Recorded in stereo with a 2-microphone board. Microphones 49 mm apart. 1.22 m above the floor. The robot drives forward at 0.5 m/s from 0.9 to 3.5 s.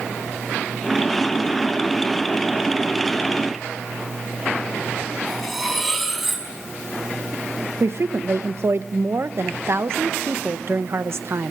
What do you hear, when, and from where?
5.3 s cutlery clinking: centre (ahead or behind), 5.5 m
7.8 s a woman speaking: 60° right (ahead or behind), 1.2 m